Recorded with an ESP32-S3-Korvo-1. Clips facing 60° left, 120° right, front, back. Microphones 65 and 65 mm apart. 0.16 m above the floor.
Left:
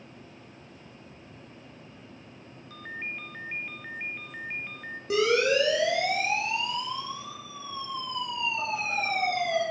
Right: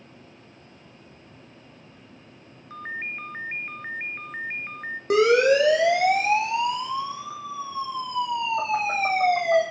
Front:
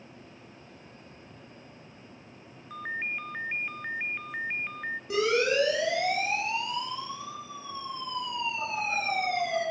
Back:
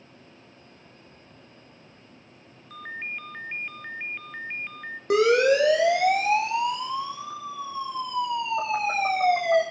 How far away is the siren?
About 6.5 m.